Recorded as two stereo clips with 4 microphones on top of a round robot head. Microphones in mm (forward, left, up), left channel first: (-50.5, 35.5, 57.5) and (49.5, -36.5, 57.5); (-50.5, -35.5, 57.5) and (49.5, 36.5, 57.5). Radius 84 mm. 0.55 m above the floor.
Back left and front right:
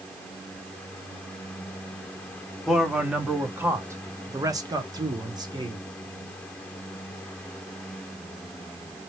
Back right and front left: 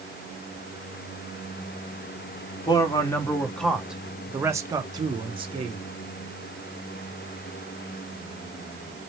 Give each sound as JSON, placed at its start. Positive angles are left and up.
{"t": 2.7, "sound": "a man speaking", "azimuth_deg": -125, "distance_m": 1.1}